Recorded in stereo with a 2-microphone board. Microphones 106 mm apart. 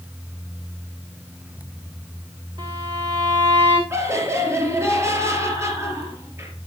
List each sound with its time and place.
2.6 s a violin: 45° right (ahead or behind), 5.5 m
3.9 s laughter: 25° right (ahead or behind), 5 m